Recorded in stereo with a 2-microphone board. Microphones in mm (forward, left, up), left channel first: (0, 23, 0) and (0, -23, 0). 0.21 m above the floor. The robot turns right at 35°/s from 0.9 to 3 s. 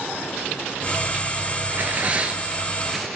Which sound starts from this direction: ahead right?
Tearing paper, at 1.7 s.